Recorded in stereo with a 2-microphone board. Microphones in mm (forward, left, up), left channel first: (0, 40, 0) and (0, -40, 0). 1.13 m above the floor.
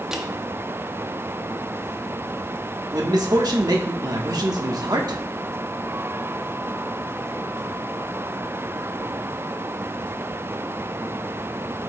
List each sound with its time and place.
0.1 s crushing: 5° right (ahead or behind), 0.8 m
2.9 s a man speaking: 55° right (ahead or behind), 1.2 m